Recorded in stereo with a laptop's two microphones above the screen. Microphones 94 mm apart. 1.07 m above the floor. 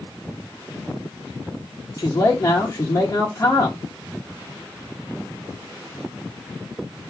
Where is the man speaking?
25° left (ahead or behind), 1.4 m.